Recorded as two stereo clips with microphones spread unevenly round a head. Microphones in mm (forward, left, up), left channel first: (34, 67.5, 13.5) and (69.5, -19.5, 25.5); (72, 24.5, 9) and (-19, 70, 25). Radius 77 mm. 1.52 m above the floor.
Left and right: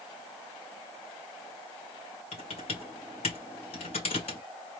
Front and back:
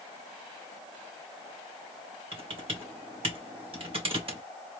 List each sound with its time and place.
2.3 s typing on a keyboard: 120° left, 2.5 m